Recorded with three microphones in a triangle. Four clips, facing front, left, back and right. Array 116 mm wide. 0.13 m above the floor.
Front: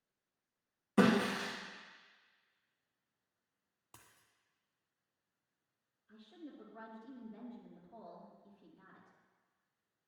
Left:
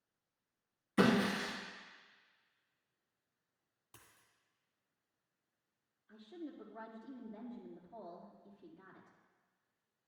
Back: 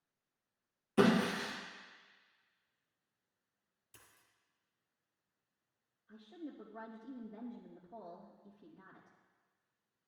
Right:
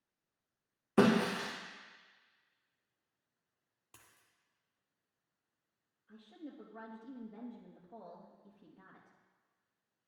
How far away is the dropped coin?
About 1.8 m.